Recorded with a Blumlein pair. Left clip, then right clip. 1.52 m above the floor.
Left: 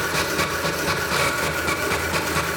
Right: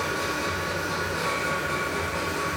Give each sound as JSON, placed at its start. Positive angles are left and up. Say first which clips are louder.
{"t": 0.0, "sound": "a machine running", "louder": "left 5 dB", "azimuth_deg": 45, "distance_m": 0.8}